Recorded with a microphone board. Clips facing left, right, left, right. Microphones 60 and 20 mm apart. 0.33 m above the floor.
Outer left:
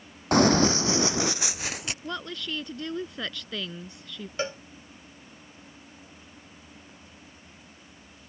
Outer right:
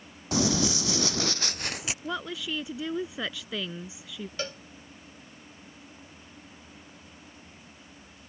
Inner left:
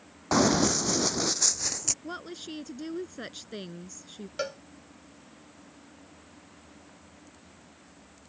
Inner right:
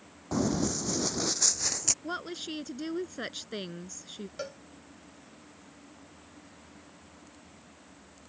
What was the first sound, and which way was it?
Running footsteps, 55° left (ahead or behind).